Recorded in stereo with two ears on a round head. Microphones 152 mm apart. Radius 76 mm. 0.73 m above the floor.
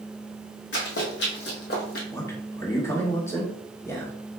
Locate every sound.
0.7 s running footsteps: 75° left (ahead or behind), 2.5 m; by 2.0 s 60° left (ahead or behind), 1.4 m
2.1 s a man speaking: 15° left (ahead or behind), 1.5 m